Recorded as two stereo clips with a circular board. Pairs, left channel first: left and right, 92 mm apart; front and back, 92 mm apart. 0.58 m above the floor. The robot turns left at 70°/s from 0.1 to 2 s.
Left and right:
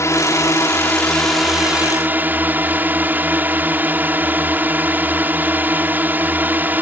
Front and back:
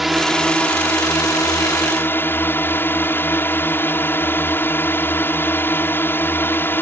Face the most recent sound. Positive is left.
turn(degrees=-40)